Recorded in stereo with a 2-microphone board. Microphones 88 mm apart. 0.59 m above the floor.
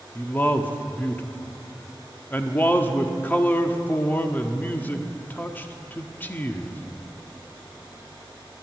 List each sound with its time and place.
0.1 s a man speaking: 20° left (ahead or behind), 0.9 m